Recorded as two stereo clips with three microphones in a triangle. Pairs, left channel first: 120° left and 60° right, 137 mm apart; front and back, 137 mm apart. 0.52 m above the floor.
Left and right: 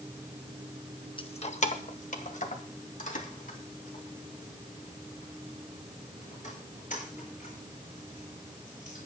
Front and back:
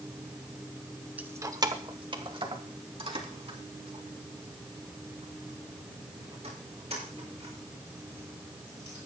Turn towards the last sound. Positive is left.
turn(degrees=140)